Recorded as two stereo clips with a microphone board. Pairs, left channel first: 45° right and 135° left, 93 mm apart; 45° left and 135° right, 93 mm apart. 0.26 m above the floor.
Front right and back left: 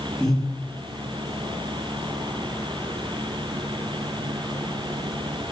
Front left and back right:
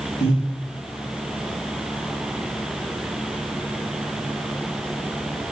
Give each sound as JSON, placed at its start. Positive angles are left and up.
{"t": 0.2, "sound": "breathing", "azimuth_deg": 40, "distance_m": 4.0}